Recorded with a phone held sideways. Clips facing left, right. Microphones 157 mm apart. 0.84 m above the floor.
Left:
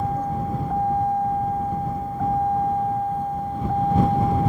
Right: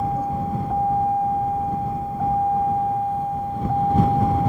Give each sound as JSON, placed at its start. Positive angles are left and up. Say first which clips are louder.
{"t": 0.0, "sound": "a vehicle", "louder": "right 1 dB", "side_deg": -10}